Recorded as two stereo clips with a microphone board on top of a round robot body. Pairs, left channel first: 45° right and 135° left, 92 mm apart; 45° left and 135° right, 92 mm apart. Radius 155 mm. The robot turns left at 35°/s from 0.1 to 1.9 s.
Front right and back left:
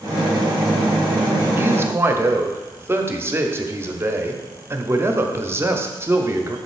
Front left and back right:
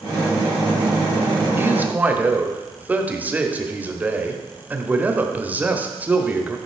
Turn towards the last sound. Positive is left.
turn(degrees=170)